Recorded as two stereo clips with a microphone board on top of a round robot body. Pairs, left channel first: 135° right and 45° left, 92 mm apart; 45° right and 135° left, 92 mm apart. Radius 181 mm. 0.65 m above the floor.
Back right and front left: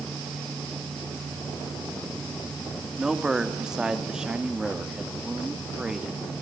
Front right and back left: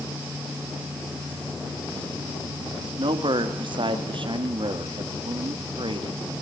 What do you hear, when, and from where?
3.0 s a man speaking: 125° left, 1.9 m